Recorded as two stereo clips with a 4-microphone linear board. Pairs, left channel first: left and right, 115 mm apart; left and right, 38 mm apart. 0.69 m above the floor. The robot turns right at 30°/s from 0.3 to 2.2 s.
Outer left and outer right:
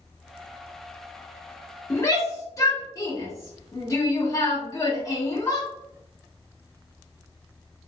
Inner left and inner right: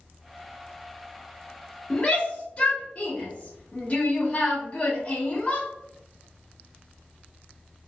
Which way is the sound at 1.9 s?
20° left (ahead or behind).